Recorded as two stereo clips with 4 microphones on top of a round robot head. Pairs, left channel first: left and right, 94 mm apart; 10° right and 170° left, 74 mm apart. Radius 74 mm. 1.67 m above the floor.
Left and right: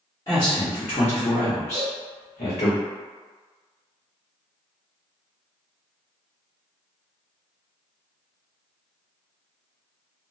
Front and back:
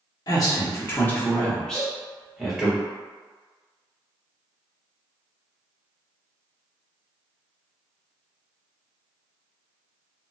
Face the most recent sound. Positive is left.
turn(degrees=-75)